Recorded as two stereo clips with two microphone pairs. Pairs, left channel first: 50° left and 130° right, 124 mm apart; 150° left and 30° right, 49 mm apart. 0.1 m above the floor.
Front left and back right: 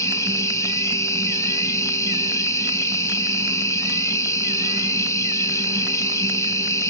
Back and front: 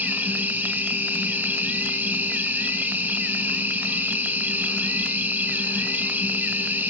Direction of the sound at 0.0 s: Straight ahead.